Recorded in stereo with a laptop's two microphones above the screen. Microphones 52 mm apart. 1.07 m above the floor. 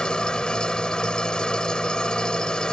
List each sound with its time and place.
0.0 s an engine running: 15° left (ahead or behind)